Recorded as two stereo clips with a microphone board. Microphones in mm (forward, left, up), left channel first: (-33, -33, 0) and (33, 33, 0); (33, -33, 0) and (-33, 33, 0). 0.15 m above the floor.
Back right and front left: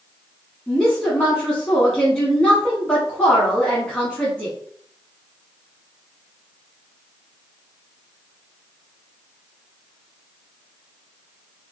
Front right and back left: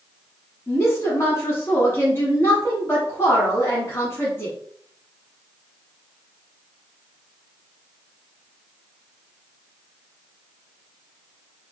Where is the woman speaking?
65° right, 1.1 m.